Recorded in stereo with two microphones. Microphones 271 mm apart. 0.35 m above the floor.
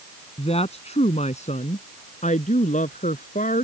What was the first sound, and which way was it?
A woman speaking, 20° left (ahead or behind).